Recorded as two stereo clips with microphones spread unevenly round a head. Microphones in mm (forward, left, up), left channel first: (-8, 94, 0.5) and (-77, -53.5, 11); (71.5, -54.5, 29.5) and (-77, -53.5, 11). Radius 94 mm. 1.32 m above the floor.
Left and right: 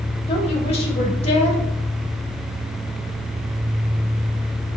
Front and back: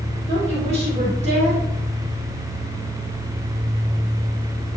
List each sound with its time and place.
0.3 s a woman speaking: 120° left, 3.5 m